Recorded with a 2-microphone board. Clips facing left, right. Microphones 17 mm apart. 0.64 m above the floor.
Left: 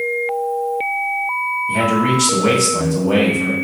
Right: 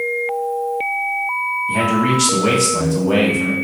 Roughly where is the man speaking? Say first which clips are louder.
Even; centre.